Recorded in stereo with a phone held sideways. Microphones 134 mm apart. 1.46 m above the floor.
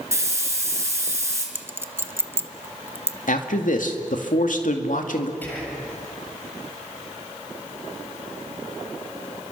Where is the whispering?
15° left (ahead or behind), 7.5 m.